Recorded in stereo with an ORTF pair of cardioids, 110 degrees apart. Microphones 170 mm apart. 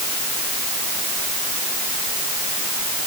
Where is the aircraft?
I don't hear an aircraft.